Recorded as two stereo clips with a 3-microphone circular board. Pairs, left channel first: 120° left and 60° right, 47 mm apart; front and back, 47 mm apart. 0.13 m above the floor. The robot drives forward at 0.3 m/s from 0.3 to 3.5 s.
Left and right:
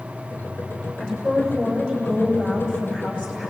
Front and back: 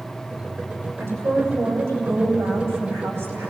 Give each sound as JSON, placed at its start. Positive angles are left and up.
{"t": 1.0, "sound": "a woman speaking", "azimuth_deg": -170, "distance_m": 8.5}